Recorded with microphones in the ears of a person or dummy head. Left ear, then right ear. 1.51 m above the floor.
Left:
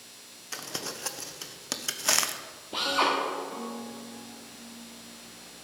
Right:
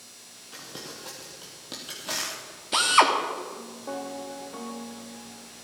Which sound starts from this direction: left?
Crumpling, at 0.5 s.